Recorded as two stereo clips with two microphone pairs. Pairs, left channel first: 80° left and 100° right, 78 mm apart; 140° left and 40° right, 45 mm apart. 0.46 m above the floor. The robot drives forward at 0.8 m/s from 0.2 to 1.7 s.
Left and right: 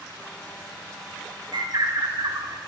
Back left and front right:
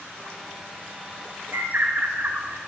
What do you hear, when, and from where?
1.5 s a bird: 75° right, 1.3 m; by 2.6 s 85° right, 1.3 m